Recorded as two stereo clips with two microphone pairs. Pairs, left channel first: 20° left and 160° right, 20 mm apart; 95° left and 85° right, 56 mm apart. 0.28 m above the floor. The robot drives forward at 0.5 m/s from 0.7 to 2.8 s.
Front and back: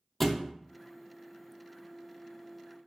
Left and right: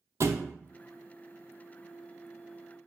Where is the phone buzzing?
I don't hear a phone buzzing.